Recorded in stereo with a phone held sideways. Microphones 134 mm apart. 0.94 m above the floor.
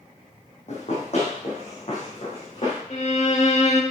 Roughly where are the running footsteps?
Left.